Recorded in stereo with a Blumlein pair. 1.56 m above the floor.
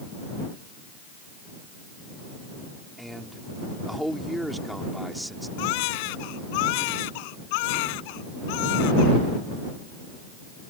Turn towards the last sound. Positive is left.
turn(degrees=45)